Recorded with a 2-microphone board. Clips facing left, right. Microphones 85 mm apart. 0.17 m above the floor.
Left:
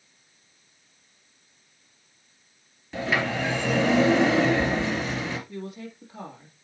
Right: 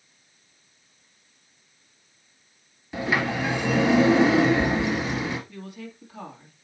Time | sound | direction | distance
2.9 | a sliding door | 10° right (ahead or behind) | 2 m
5.5 | a woman speaking | 25° left (ahead or behind) | 3 m